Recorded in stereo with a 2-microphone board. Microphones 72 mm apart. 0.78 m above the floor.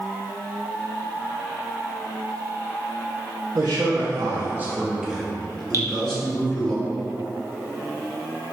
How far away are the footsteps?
No footsteps in this recording.